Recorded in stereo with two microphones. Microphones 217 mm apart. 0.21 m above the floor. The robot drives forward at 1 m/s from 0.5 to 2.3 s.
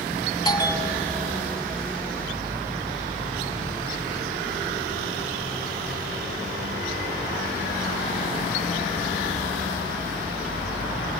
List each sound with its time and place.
0.5 s a bell: 20° left (ahead or behind), 0.8 m; by 1.4 s 10° left (ahead or behind), 1.5 m